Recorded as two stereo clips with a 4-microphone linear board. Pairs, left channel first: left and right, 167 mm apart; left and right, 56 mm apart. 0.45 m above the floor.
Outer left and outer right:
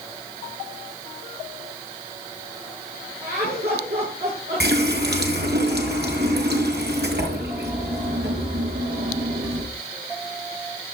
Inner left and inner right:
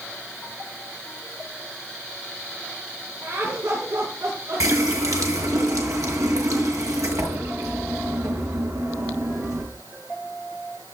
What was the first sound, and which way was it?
Laughter, 70° right (ahead or behind).